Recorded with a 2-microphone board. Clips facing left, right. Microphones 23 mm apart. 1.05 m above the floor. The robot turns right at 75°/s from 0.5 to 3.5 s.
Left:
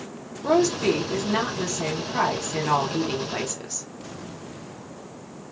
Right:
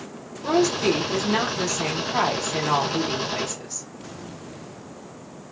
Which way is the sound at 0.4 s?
Straight behind.